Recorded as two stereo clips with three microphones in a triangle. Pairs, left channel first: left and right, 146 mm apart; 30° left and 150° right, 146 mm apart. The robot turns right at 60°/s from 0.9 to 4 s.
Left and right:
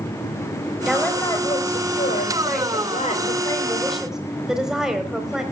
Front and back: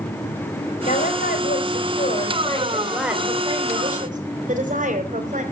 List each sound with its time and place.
0.8 s a woman speaking: 5° right, 4 m; by 5.4 s 175° right, 4 m